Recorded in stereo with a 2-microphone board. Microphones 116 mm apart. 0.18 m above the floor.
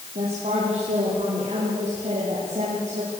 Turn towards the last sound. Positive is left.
turn(degrees=-70)  # may be behind; listen again after turning